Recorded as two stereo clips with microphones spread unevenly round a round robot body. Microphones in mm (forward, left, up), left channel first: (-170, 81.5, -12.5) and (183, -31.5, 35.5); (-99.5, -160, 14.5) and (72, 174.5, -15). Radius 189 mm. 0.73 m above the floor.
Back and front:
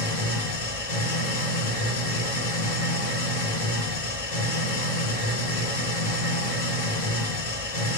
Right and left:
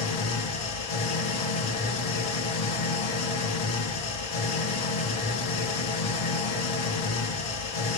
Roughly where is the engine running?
Behind right.